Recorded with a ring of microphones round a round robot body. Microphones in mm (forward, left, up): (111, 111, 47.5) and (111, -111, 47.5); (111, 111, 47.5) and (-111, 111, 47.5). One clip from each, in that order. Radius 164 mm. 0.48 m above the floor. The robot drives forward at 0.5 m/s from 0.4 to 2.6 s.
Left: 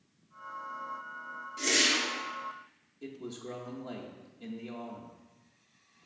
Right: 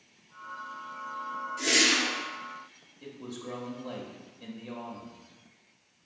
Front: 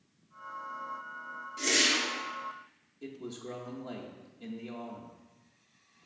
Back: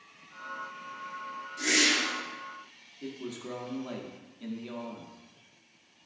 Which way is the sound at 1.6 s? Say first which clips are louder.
Right 3 dB, back 2 dB; 60° left.